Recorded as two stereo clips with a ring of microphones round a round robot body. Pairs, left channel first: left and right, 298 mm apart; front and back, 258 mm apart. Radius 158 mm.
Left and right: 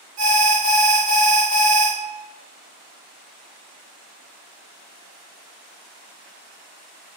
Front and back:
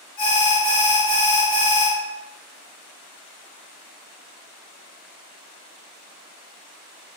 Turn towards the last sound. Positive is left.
turn(degrees=-60)